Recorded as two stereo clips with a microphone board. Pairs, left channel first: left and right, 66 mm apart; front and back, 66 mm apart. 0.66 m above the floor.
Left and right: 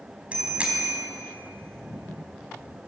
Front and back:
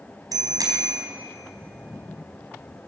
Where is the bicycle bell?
160° right, 3.5 m.